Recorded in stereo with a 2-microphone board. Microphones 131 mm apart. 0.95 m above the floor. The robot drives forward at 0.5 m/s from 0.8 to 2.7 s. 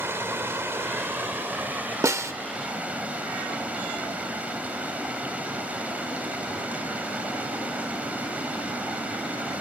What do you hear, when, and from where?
0.0 s running water: 20° right (ahead or behind), 1.5 m; by 9.6 s 10° right (ahead or behind), 2.5 m
2.0 s a snare drum: 20° right (ahead or behind), 0.6 m